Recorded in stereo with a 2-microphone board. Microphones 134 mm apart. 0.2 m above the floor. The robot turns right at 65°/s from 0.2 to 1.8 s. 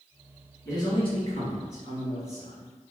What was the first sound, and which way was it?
A man speaking, 25° left.